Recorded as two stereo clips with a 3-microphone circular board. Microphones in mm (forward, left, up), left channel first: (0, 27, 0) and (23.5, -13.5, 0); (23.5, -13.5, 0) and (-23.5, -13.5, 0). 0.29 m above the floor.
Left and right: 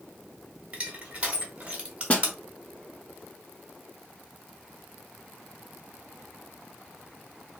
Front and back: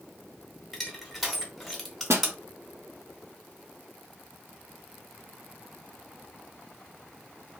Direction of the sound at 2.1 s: Straight behind.